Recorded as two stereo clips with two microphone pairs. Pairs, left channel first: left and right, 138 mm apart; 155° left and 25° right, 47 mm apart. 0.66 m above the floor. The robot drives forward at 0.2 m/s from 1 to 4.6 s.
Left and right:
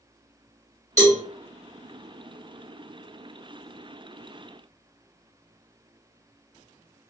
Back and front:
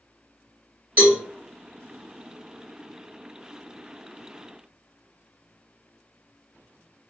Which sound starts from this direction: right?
A cowbell, at 1.0 s.